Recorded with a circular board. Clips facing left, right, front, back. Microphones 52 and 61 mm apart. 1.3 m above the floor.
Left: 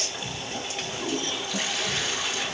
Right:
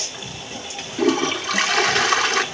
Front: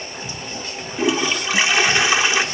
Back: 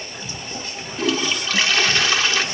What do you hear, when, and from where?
1.0 s a toilet flushing: 70° right, 0.9 m